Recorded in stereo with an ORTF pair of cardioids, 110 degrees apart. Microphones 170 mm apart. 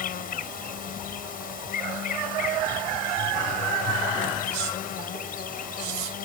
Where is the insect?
55° left.